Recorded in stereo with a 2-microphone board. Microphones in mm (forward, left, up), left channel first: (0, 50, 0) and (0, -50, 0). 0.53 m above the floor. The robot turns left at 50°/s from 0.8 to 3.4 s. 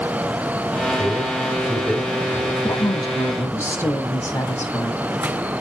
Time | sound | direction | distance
0.8 | a man speaking | 45° right (ahead or behind) | 3.5 m
2.6 | a woman speaking | 65° left | 9 m